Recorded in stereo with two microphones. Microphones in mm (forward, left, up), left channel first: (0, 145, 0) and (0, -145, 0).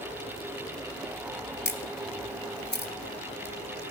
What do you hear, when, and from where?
1.6 s a camera shutter: 35° left (ahead or behind), 1.1 m